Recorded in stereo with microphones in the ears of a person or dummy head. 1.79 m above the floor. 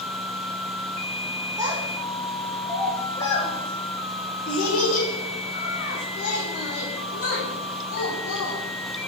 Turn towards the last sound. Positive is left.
turn(degrees=65)  # may be behind; listen again after turning